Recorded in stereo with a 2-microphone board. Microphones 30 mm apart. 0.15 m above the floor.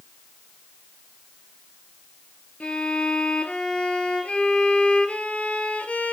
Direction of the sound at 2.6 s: 45° left (ahead or behind).